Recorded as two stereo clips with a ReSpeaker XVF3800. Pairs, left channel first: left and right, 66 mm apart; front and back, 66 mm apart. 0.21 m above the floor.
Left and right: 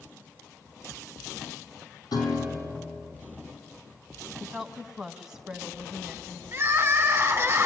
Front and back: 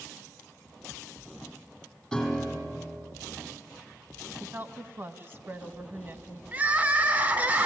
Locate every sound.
2.1 s a piano: 85° left, 5.5 m
4.4 s a woman speaking: 165° right, 1.3 m
6.5 s crying: 125° right, 1.8 m